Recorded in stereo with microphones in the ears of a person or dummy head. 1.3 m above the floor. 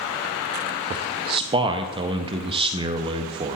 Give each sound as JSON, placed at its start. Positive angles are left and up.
{"t": 0.9, "sound": "a man speaking", "side_deg": -30, "distance_m": 0.6}